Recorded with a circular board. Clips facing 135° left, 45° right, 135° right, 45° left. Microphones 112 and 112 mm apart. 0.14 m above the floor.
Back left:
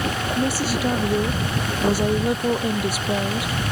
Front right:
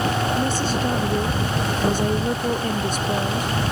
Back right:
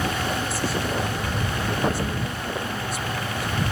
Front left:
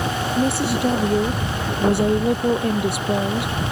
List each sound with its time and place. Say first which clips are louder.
0.4 s a woman speaking: even, front left 7 dB; 55° left